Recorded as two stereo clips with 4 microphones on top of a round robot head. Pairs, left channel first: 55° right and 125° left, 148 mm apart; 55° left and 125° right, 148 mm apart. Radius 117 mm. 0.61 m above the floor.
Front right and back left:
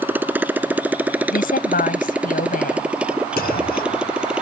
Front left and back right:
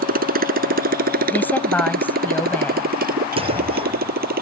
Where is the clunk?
75° right.